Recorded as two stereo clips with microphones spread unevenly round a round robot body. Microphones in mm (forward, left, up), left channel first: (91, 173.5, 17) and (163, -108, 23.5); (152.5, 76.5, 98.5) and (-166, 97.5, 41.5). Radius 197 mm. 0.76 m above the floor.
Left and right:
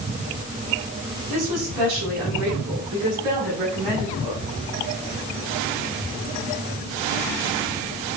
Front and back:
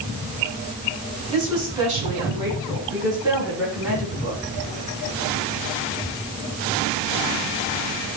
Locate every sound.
1.3 s a woman speaking: 110° right, 6 m; by 4.4 s 100° right, 7 m